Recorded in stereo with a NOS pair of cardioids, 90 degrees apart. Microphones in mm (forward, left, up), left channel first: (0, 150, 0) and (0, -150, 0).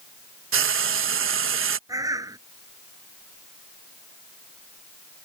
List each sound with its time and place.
0.5 s frying: 45° right
1.9 s a bird: 10° right